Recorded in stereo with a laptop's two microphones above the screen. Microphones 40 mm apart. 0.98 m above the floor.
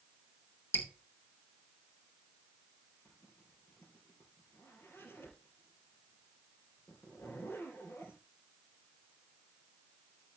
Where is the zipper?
80° left, 4 m.